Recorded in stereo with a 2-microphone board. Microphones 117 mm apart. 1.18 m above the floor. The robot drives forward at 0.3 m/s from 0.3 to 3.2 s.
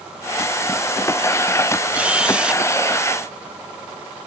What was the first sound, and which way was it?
A camera shutter, 10° right (ahead or behind).